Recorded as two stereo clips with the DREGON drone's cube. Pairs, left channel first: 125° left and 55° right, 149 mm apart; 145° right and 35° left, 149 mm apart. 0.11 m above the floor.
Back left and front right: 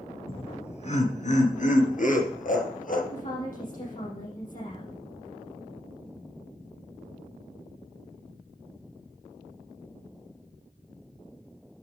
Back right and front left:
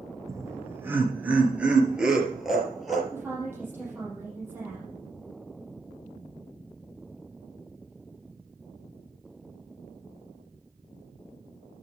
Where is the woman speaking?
105° left, 6 m.